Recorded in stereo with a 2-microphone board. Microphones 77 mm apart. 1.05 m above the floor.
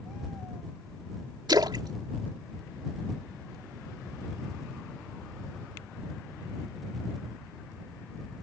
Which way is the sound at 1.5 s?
65° right (ahead or behind).